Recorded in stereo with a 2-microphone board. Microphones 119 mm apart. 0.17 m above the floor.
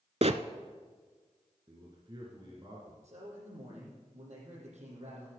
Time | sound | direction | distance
0.2 | a bird | 65° right (ahead or behind) | 0.6 m
1.7 | a man speaking | 40° right (ahead or behind) | 2.5 m
3.0 | a man speaking | 75° right (ahead or behind) | 7 m